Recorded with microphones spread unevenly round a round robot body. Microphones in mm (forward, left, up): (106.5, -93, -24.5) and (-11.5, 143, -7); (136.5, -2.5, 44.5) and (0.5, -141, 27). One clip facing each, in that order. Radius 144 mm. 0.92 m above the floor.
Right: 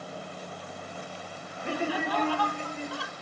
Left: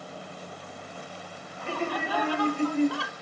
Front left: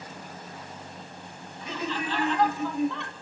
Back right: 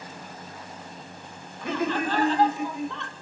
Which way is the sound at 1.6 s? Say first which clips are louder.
Right 1 dB, back right 6 dB; 135° right.